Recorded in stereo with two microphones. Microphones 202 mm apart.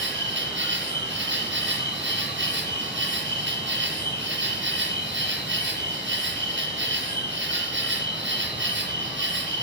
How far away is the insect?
About 9.5 m.